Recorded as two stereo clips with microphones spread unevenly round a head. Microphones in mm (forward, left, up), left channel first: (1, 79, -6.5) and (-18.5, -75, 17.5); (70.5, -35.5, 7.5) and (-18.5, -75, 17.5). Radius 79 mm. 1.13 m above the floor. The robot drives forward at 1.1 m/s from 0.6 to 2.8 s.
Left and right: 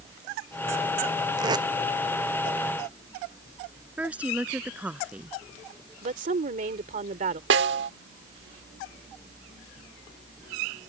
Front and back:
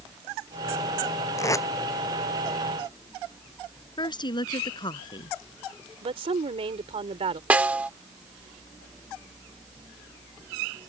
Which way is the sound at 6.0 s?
140° right.